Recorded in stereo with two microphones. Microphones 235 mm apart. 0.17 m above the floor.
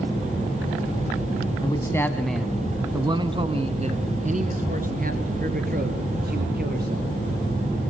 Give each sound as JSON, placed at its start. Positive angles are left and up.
{"t": 1.6, "sound": "a man speaking", "side_deg": 20, "distance_m": 1.1}